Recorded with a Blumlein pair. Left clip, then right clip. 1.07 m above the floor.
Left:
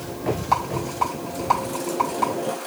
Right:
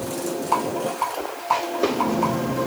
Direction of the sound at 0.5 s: 35° left.